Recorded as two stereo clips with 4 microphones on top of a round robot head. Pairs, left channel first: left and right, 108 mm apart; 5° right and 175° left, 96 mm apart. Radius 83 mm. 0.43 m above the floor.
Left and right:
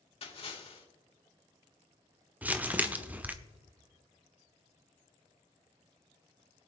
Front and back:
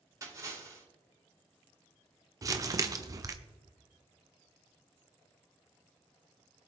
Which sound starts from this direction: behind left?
A splash, at 0.2 s.